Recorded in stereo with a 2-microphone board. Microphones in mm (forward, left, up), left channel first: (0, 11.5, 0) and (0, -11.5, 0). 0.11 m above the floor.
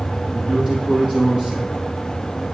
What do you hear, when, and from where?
0.3 s a man speaking: 40° right (ahead or behind), 3.5 m; by 1.9 s 45° right (ahead or behind), 1.8 m